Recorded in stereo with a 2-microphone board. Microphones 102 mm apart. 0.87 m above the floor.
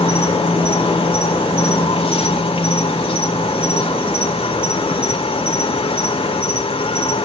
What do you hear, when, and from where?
0.0 s an insect: 70° left (ahead or behind), 1.5 m